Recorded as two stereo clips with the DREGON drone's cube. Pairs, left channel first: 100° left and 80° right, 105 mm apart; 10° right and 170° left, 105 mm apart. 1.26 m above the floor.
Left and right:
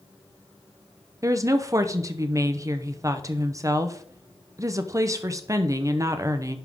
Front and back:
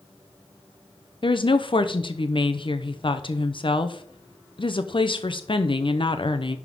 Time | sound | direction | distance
1.2 | a woman speaking | 30° right | 0.8 m